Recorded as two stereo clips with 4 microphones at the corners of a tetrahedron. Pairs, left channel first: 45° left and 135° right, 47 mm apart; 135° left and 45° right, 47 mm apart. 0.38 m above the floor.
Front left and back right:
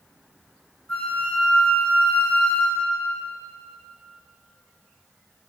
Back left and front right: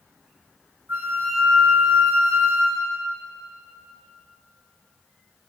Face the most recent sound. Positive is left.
turn(degrees=-25)